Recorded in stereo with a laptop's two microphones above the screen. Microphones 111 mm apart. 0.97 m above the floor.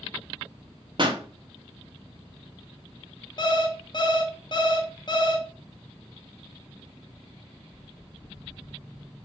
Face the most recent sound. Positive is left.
turn(degrees=40)  # may be behind; listen again after turning